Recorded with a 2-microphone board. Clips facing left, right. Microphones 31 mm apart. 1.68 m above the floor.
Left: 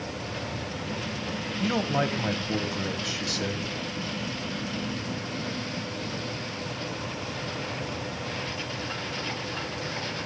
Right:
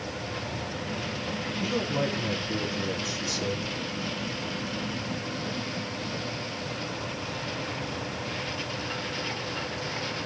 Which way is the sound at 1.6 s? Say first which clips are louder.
Left 3 dB; 60° left (ahead or behind).